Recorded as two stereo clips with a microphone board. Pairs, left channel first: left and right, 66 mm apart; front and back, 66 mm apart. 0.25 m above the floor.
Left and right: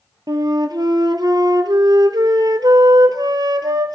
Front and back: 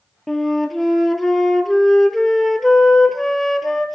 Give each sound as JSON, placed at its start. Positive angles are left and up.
{"t": 0.3, "sound": "a flute", "azimuth_deg": -90, "distance_m": 0.9}